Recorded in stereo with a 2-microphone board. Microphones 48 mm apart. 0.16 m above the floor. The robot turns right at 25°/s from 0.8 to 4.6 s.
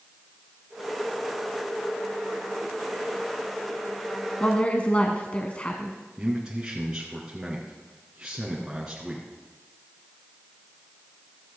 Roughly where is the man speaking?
Centre.